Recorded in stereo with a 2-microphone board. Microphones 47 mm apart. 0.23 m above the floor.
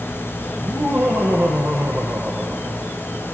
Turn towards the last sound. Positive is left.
turn(degrees=-35)  # may be behind; listen again after turning